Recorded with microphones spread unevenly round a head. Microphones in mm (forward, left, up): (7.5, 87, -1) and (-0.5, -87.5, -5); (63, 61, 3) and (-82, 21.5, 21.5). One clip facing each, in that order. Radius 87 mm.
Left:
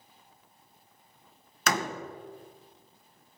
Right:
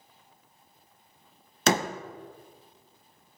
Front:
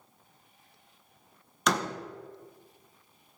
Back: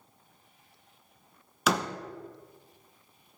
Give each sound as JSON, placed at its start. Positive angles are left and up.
{"t": 1.7, "sound": "a door slam", "azimuth_deg": -100, "distance_m": 0.8}